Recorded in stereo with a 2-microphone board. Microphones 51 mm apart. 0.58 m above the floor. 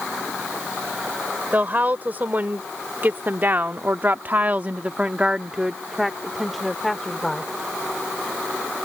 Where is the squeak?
I don't hear a squeak.